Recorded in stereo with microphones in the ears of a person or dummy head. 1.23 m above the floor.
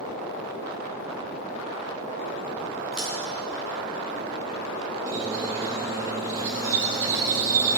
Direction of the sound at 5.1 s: 15° right (ahead or behind).